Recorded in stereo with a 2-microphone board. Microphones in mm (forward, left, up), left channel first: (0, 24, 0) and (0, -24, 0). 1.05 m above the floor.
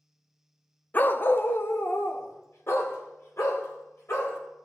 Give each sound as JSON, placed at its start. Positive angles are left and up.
{"t": 0.9, "sound": "a dog barking", "side_deg": 35, "distance_m": 0.5}